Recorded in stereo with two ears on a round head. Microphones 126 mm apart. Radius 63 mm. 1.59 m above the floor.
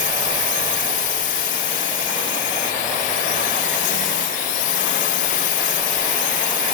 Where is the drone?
65° left (ahead or behind).